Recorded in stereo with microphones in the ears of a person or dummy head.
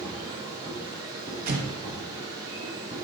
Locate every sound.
0.0 s a machine running: 25° right (ahead or behind), 3.5 m
1.5 s an explosion: 50° right (ahead or behind), 1.3 m